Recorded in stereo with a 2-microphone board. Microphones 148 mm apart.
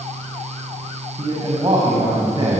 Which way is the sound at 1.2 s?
30° right (ahead or behind).